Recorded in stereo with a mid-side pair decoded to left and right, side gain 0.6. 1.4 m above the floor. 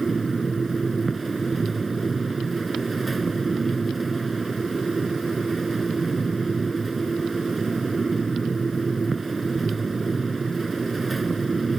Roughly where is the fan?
Ahead right.